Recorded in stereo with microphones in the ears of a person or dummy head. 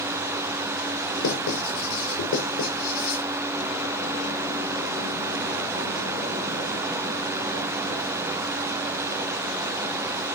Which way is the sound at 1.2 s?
75° left (ahead or behind).